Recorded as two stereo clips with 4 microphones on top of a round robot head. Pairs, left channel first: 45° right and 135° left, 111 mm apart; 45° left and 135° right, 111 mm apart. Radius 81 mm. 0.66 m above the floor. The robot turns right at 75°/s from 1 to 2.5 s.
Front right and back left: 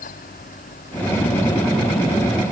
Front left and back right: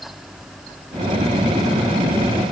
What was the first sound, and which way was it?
Only background noise.